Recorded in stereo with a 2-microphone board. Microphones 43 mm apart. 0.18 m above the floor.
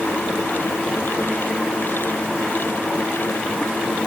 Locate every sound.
Only background noise.